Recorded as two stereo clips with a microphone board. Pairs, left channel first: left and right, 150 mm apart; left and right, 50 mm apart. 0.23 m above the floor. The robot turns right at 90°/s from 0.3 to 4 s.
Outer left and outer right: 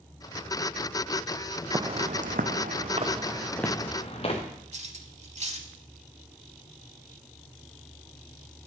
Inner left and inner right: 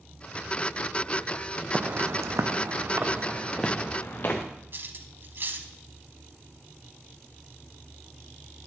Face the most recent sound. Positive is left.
turn(degrees=-50)  # may be behind; listen again after turning